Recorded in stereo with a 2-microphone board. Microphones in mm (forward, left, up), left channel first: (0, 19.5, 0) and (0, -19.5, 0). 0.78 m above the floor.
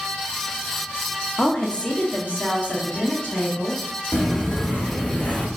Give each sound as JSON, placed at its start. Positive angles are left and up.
{"t": 1.4, "sound": "a woman speaking", "side_deg": 20, "distance_m": 0.6}
{"t": 4.1, "sound": "footsteps", "side_deg": 50, "distance_m": 1.8}